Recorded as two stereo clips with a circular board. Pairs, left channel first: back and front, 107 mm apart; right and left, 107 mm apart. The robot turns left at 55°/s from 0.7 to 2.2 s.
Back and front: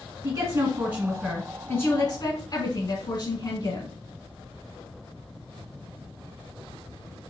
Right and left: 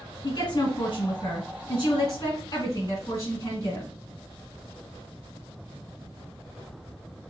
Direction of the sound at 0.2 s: 55° right.